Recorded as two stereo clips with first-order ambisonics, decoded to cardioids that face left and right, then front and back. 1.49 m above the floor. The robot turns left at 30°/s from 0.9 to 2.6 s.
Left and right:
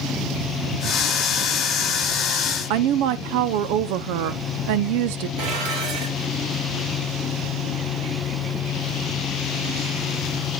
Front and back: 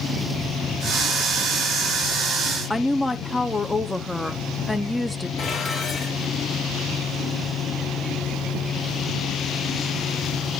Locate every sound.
2.7 s a woman speaking: 85° right, 0.7 m
5.4 s dishes clattering: 70° right, 3 m